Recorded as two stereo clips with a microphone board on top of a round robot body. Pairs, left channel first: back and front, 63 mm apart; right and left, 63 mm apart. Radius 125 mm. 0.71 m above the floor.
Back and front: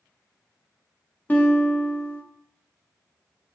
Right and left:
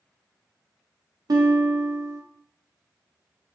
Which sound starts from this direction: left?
A guitar, at 1.3 s.